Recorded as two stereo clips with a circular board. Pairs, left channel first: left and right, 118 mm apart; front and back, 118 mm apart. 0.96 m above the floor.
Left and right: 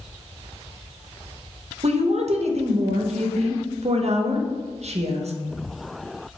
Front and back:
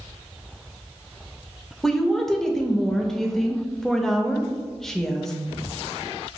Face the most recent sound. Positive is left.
turn(degrees=-85)